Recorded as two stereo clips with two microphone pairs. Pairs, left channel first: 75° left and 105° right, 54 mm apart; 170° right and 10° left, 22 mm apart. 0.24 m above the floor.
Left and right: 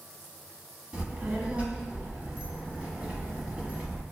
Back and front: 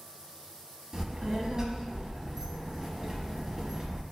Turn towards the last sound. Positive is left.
turn(degrees=-45)